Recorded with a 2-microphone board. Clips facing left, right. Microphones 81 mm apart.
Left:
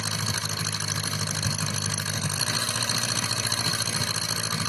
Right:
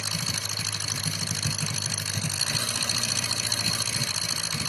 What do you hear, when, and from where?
0.0 s an engine running: 50° left (ahead or behind), 0.9 m